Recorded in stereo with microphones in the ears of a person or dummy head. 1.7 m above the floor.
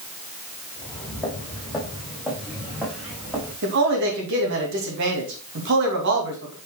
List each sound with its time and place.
0.8 s footsteps: 10° left (ahead or behind), 4 m; by 3.5 s 10° right (ahead or behind), 6.5 m
3.6 s a man speaking: 65° right (ahead or behind), 2.5 m